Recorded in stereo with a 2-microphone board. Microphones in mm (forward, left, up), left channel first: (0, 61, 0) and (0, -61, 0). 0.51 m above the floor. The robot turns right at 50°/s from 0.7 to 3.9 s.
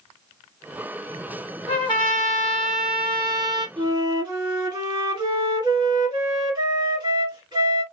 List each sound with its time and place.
1.7 s a trumpet: 125° left, 1.7 m; by 3.7 s 135° right, 1.7 m
3.8 s a flute: 40° right (ahead or behind), 1.7 m; by 7.8 s 35° right (ahead or behind), 1.7 m